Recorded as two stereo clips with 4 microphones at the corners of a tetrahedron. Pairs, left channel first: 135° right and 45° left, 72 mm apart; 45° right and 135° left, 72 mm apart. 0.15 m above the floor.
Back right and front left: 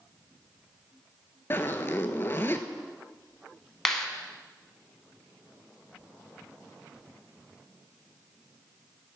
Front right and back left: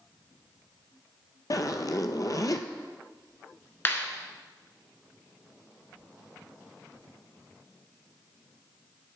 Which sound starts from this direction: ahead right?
A clap, at 3.9 s.